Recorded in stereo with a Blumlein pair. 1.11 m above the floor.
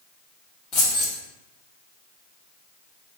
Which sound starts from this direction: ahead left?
Keys jangling, at 0.7 s.